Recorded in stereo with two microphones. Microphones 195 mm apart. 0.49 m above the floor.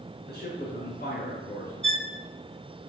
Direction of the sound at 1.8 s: 35° right (ahead or behind).